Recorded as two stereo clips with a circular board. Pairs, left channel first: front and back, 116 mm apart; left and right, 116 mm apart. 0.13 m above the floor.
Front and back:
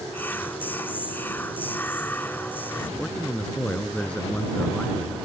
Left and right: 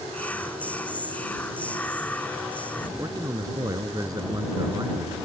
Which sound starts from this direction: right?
A man speaking, at 3.0 s.